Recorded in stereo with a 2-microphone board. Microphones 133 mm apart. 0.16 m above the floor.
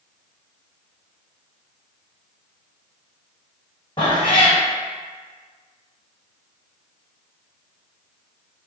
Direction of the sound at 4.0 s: 40° left (ahead or behind).